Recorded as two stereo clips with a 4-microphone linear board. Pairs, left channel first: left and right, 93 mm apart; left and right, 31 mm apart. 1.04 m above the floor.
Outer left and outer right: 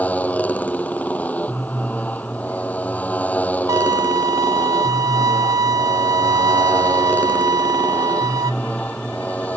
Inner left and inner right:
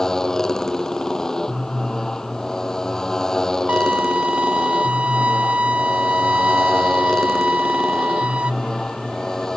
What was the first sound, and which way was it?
A motorcycle, 15° left (ahead or behind).